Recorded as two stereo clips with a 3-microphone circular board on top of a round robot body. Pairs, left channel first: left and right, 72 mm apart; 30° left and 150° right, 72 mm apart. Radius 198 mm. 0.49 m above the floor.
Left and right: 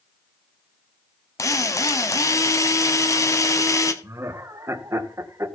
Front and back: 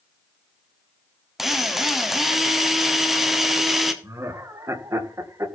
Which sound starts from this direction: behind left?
A drill, at 1.4 s.